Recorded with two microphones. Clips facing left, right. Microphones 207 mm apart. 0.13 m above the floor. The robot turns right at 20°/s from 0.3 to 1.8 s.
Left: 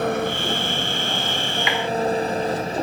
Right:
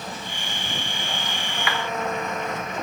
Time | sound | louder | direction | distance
0.0 | an engine running | left 13 dB | 115° left | ?
1.7 | a clap | left 3 dB | 20° left (ahead or behind) | ?